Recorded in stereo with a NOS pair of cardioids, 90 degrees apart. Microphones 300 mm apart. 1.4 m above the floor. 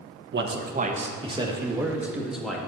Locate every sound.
0.3 s a man speaking: 40° right, 1.2 m; by 2.6 s straight ahead, 2 m